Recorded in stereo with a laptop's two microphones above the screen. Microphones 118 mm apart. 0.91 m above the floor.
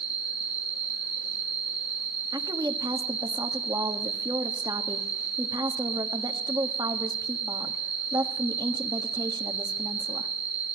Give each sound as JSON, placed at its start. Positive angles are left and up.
{"t": 0.0, "sound": "an insect", "side_deg": 30, "distance_m": 2.0}
{"t": 2.3, "sound": "a woman speaking", "side_deg": -35, "distance_m": 1.3}